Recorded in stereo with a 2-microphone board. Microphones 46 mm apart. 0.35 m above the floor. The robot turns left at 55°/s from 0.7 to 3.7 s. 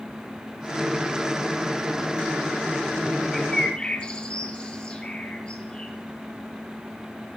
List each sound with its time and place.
3.3 s a bird: 5° left (ahead or behind), 1.8 m; by 5.9 s 25° left (ahead or behind), 1.8 m